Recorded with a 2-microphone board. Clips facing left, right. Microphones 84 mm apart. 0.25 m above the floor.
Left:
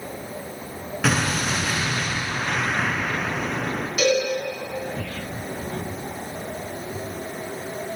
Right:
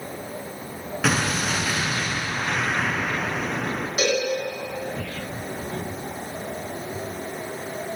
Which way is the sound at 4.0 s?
35° right (ahead or behind).